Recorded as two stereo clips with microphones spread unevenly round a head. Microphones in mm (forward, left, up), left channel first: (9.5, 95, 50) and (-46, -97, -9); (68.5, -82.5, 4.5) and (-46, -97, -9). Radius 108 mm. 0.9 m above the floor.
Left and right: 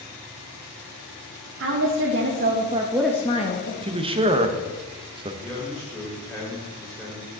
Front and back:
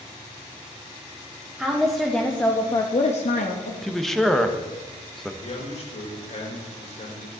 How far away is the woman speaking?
About 2 m.